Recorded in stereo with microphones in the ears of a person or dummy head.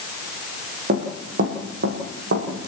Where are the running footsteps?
50° right (ahead or behind), 4.5 m; by 2.7 s 65° right (ahead or behind), 5 m.